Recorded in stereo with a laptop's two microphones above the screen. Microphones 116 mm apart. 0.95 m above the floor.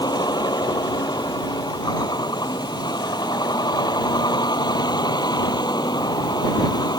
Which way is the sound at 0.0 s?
35° left (ahead or behind).